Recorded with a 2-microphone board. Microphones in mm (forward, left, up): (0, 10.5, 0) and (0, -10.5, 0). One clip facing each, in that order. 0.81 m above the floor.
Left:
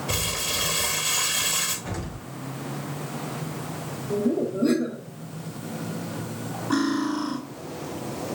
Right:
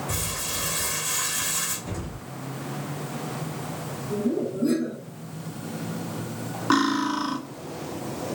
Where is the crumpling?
55° left (ahead or behind), 2.5 m.